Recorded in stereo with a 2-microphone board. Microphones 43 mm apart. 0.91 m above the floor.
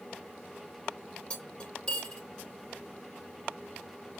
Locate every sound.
1.3 s cutlery clinking: 25° left (ahead or behind), 1.9 m